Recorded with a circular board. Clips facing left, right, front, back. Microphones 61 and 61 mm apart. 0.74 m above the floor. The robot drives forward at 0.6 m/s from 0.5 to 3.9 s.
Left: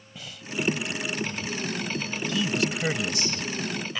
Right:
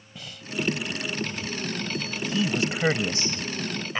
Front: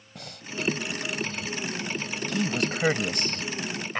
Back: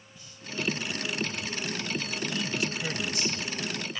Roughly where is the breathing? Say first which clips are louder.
Even, front 5 dB; ahead.